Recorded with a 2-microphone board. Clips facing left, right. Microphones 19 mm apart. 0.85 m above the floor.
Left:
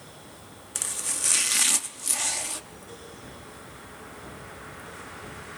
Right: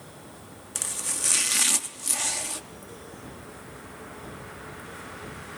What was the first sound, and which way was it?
Chopping, centre (ahead or behind).